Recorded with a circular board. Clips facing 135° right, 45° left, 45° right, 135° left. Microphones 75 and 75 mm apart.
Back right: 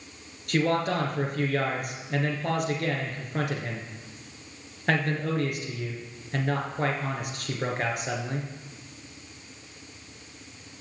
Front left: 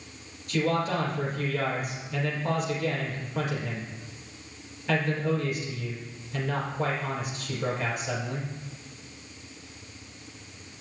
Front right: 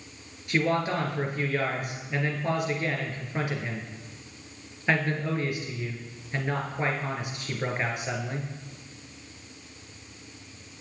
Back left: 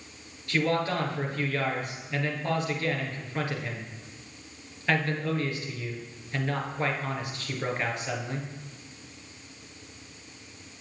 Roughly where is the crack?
I don't hear a crack.